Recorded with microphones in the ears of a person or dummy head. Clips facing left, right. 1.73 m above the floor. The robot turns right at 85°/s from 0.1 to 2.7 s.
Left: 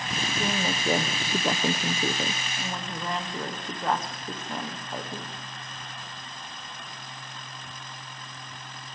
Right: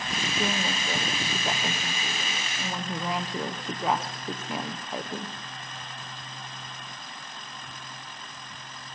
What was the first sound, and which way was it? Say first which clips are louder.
A woman speaking: left 1 dB; 15° right.